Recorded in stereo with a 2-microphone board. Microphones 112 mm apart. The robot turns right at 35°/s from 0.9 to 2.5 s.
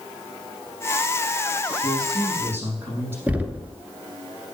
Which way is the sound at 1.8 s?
45° right (ahead or behind).